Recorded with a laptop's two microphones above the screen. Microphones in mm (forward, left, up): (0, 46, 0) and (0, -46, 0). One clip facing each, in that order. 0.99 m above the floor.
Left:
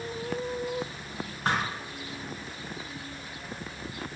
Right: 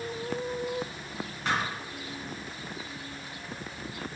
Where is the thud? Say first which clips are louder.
Left 1 dB; 40° left (ahead or behind), 3.5 m.